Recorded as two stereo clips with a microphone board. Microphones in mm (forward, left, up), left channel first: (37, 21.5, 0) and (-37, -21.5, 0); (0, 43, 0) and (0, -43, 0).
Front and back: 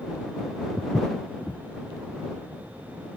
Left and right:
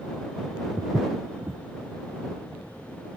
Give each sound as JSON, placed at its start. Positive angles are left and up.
{"t": 0.8, "sound": "footsteps", "azimuth_deg": -45}